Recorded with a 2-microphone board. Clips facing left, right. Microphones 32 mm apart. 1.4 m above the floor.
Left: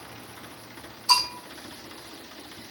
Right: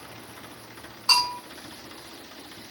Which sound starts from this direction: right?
A bell, at 1.1 s.